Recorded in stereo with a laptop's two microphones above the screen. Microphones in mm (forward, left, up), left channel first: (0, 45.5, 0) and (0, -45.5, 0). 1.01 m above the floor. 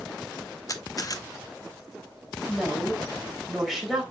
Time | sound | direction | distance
0.7 | a camera shutter | 45° left (ahead or behind) | 0.8 m
2.5 | a woman speaking | centre (ahead or behind) | 4 m